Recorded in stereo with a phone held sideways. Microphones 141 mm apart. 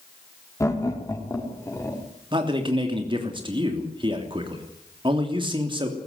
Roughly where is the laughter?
Left.